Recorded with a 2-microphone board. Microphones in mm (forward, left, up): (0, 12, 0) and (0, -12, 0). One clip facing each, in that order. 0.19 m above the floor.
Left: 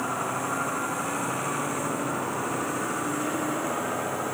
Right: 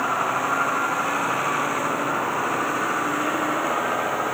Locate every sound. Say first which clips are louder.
0.0 s a vehicle: right 6 dB; 30° right (ahead or behind)